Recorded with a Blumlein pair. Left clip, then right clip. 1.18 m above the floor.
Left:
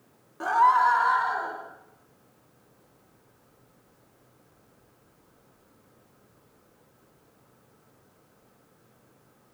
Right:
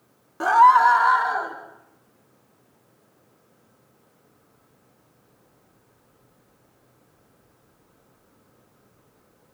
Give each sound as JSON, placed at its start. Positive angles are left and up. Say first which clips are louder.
{"t": 0.4, "sound": "a scream", "louder": "right 6 dB", "azimuth_deg": -20, "distance_m": 2.5}